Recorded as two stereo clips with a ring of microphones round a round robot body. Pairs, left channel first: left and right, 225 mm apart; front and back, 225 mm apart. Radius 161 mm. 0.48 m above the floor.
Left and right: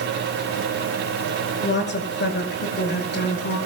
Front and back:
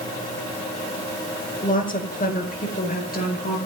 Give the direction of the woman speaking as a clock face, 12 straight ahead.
10 o'clock.